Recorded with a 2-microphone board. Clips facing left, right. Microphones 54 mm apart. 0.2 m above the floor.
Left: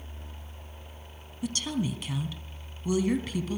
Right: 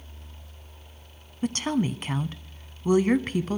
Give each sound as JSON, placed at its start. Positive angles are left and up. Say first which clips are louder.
{"t": 1.4, "sound": "a woman speaking", "louder": "right 5 dB", "side_deg": -40, "distance_m": 1.4}